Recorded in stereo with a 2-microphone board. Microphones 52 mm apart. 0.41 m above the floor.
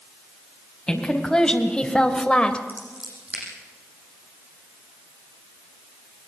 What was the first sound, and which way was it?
A woman speaking, 15° left (ahead or behind).